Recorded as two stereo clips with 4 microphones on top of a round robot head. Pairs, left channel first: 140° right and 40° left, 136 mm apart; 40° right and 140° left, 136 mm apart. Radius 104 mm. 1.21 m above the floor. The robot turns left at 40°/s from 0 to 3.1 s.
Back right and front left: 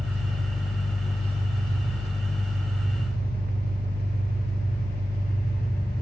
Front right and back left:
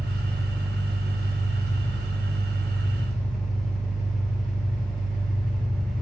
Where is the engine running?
5° right, 2.5 m; by 6.0 s 130° right, 2.5 m.